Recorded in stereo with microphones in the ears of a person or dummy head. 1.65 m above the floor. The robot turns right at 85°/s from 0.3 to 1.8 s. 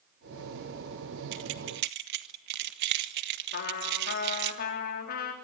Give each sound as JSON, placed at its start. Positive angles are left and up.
{"t": 1.3, "sound": "keys jangling", "side_deg": -60, "distance_m": 1.5}
{"t": 3.5, "sound": "a trumpet", "side_deg": 50, "distance_m": 3.5}